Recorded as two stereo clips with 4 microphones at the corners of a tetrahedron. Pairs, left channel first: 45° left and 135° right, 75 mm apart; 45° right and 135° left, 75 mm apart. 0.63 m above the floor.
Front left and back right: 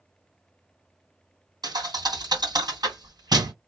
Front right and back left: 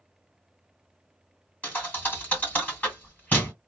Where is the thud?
115° right, 2 m.